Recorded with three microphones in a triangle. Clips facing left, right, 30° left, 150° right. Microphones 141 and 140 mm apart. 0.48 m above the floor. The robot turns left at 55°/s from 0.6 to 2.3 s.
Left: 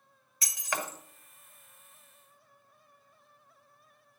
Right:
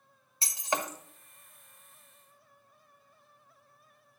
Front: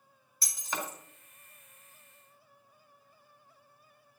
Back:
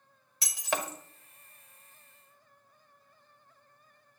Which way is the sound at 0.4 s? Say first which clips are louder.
Right 3 dB, back 5 dB; 150° right.